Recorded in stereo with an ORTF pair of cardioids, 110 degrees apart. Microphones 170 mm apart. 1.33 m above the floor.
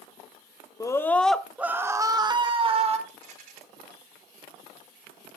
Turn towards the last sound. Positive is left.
turn(degrees=-65)